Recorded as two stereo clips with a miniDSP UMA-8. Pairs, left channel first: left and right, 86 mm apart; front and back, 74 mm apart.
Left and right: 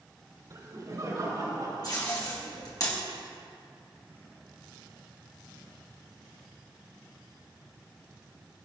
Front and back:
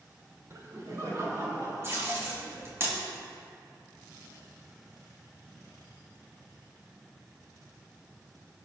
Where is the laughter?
135° right, 3 m.